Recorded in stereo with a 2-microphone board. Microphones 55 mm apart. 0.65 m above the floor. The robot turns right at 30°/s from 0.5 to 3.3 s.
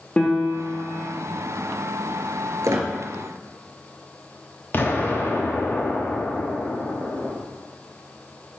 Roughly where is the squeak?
Right.